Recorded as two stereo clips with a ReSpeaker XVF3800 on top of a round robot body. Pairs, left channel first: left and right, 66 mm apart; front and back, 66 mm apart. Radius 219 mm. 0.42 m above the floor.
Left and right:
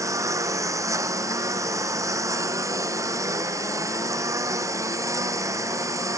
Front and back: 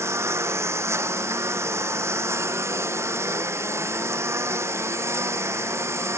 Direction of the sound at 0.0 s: 135° right.